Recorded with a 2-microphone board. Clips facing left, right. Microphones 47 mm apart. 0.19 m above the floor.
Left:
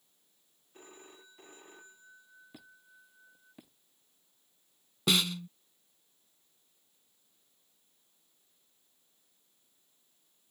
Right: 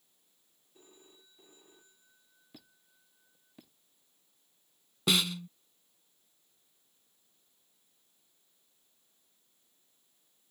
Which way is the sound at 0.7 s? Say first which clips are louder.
Left 7 dB; 75° left (ahead or behind).